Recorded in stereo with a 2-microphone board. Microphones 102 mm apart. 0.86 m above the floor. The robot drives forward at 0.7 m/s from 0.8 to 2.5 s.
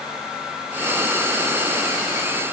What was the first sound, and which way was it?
Only background noise.